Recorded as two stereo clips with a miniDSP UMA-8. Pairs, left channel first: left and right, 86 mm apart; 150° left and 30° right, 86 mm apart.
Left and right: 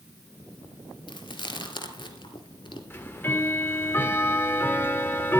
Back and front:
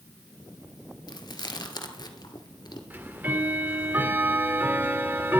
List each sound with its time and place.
1.1 s chewing: 110° left, 1.8 m
2.9 s ticking: 30° left, 1.4 m